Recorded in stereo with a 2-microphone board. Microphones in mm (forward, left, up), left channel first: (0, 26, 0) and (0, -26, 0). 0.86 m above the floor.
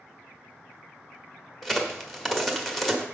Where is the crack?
Centre (ahead or behind), 1.1 m.